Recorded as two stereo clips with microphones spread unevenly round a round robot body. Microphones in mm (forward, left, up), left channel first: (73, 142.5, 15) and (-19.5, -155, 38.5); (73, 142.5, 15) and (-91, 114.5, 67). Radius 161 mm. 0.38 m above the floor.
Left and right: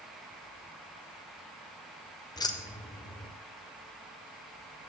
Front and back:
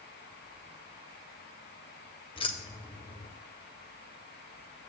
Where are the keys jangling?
5° left, 0.7 m.